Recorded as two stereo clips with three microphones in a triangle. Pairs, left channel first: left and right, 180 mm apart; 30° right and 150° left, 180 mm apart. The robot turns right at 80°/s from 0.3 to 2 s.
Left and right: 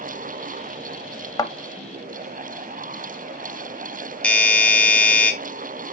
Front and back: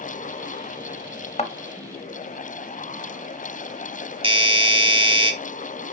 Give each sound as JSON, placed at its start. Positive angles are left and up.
{"t": 1.4, "sound": "a thud", "azimuth_deg": 20, "distance_m": 0.8}
{"t": 4.2, "sound": "a doorbell", "azimuth_deg": 165, "distance_m": 1.4}